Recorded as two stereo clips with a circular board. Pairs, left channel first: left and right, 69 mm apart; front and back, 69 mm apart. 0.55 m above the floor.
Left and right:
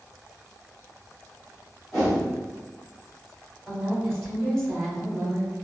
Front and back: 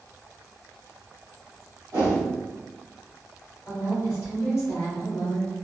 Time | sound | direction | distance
1.9 | a whoosh | 165° left | 1.5 m
3.7 | a woman speaking | 10° left | 1.1 m